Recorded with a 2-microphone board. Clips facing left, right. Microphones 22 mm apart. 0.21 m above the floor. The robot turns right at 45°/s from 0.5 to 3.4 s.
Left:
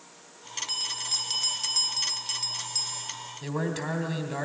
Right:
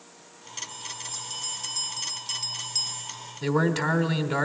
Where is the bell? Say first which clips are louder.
Left 8 dB; 95° left, 1.1 m; by 3.1 s 155° right, 1.1 m.